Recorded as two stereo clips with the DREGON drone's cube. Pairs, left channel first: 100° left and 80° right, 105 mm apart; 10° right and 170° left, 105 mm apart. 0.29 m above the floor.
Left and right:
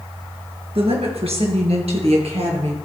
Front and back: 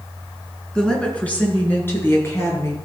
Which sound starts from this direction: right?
A woman speaking, at 0.8 s.